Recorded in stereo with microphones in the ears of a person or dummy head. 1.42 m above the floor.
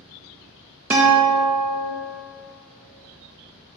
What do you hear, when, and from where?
0.9 s a guitar: 15° right (ahead or behind), 0.8 m